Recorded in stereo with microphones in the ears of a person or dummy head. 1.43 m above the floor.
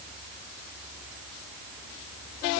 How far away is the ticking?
I don't hear ticking.